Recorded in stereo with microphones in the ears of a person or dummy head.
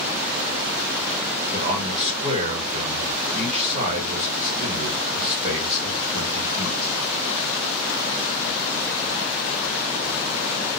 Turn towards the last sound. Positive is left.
turn(degrees=-35)  # may be behind; listen again after turning